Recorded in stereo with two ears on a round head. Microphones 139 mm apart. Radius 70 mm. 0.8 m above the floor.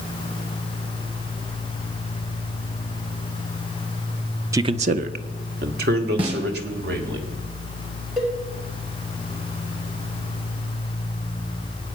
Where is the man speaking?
20° right (ahead or behind), 0.5 m; by 7.2 s 80° right, 3.5 m.